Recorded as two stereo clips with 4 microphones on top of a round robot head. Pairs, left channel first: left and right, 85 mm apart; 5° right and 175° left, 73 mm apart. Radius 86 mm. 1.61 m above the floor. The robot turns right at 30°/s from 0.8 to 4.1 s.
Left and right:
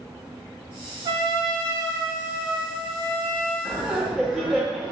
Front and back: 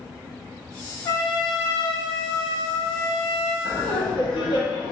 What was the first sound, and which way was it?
A trumpet, 50° right.